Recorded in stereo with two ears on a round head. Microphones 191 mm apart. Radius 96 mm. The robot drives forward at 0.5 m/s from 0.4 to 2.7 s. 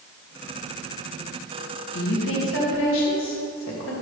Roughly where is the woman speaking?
Left.